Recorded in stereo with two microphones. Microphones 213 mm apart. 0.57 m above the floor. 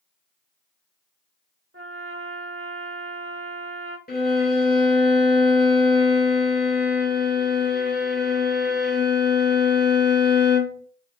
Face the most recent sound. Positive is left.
turn(degrees=50)  # may be behind; listen again after turning